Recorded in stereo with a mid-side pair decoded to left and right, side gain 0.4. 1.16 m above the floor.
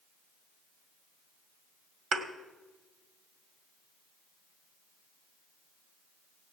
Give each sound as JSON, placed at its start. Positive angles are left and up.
{"t": 2.1, "sound": "a thud", "azimuth_deg": -65, "distance_m": 1.8}